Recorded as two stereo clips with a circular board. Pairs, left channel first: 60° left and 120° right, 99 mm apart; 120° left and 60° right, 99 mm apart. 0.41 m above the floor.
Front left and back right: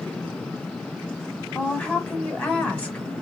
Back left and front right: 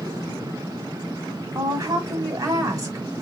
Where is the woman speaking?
15° right, 1.2 m.